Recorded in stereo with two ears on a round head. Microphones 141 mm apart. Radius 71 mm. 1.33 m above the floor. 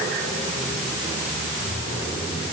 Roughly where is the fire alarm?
No fire alarm in this recording.